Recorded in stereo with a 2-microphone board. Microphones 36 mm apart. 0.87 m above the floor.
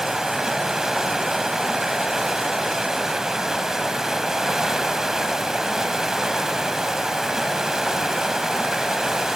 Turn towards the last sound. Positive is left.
turn(degrees=-10)  # may be behind; listen again after turning